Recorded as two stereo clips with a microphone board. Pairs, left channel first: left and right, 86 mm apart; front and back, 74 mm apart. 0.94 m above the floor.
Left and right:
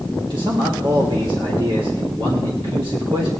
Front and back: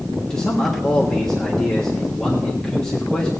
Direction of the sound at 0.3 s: 80° right.